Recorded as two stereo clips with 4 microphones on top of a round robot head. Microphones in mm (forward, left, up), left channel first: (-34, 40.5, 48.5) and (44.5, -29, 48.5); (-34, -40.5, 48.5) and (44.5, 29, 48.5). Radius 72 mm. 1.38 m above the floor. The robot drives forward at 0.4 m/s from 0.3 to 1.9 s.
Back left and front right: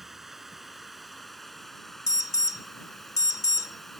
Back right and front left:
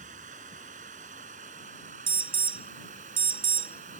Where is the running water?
45° left; by 4.0 s 50° left.